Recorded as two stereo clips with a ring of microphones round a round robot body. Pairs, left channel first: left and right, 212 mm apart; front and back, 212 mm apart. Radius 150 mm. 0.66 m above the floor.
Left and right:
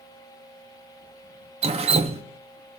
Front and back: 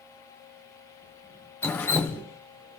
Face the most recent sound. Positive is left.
turn(degrees=-70)